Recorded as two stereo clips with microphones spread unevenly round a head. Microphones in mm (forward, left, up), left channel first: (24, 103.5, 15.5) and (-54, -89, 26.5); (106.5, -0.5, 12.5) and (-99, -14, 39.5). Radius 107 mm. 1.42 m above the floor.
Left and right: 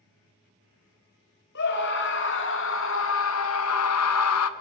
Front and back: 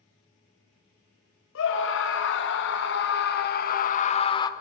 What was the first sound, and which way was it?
A scream, 30° left.